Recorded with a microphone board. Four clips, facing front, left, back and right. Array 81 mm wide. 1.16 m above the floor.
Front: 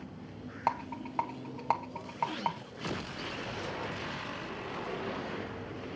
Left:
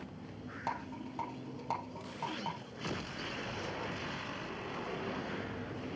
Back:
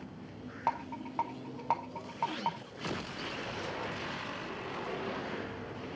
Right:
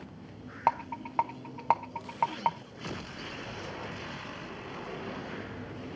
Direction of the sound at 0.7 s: 80° right.